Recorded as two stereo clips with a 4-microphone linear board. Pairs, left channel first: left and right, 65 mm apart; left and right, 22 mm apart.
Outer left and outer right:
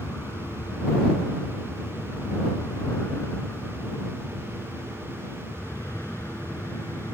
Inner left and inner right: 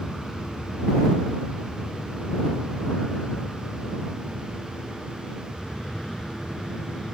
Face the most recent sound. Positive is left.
turn(degrees=40)  # may be behind; listen again after turning